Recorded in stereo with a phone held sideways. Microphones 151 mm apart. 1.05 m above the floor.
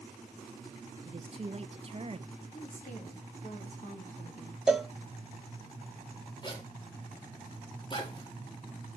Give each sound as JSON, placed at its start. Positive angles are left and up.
{"t": 1.1, "sound": "a woman speaking", "side_deg": -40, "distance_m": 0.9}
{"t": 2.5, "sound": "a woman speaking", "side_deg": 65, "distance_m": 2.5}
{"t": 4.7, "sound": "a cowbell", "side_deg": -5, "distance_m": 0.5}
{"t": 6.4, "sound": "a zipper", "side_deg": 30, "distance_m": 2.0}